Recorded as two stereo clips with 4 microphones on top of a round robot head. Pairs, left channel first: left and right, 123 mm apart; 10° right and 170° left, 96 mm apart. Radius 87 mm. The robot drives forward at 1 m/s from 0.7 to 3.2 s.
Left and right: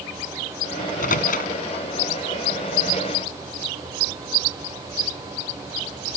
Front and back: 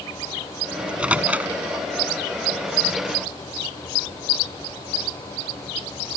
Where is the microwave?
90° left; by 1.5 s 95° left.